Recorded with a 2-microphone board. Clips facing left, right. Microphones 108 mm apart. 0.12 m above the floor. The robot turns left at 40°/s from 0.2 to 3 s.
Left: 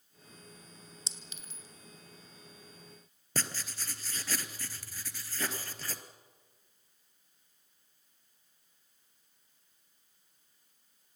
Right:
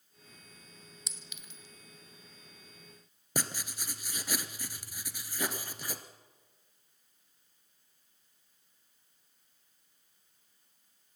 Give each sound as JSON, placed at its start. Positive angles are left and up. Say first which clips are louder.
{"t": 1.1, "sound": "a clink", "louder": "left 1 dB", "side_deg": 30, "distance_m": 1.0}
{"t": 3.4, "sound": "writing", "louder": "right 2 dB", "side_deg": -15, "distance_m": 1.4}